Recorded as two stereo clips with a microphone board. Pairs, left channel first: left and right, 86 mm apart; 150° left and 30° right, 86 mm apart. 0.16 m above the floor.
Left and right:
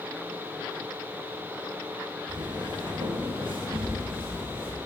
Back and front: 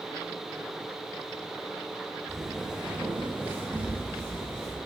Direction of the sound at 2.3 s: 120° right.